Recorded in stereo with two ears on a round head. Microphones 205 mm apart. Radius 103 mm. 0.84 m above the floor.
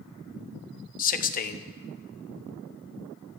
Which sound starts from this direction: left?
A man speaking, at 1.0 s.